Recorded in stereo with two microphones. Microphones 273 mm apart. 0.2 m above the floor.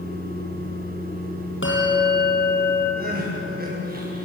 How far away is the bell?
About 5 m.